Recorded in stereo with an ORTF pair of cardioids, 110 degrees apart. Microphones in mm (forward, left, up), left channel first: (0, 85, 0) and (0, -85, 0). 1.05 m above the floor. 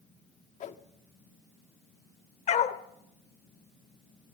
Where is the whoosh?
45° left, 1.2 m.